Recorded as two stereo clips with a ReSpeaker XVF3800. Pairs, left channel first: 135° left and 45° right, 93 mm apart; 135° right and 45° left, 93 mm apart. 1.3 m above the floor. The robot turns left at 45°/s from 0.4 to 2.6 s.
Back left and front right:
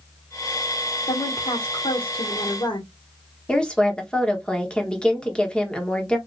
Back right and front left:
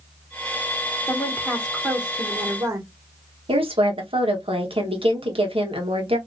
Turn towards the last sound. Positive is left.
turn(degrees=55)